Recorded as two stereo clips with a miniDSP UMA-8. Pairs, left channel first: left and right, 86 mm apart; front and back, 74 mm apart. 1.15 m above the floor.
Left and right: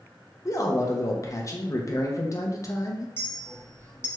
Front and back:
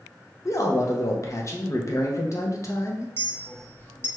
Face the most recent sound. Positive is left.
turn(degrees=40)